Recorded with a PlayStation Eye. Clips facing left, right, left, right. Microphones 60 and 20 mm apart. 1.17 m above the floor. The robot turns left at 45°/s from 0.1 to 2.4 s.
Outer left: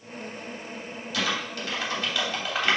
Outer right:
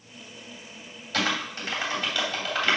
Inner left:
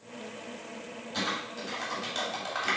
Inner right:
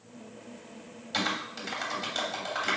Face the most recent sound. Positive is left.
turn(degrees=10)  # may be behind; listen again after turning